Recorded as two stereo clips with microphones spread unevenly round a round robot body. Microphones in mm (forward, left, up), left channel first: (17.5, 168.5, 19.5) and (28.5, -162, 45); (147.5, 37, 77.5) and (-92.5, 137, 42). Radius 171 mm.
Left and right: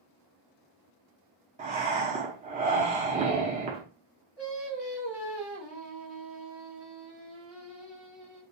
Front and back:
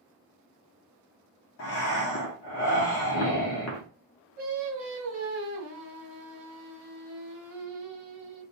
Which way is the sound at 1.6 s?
25° right.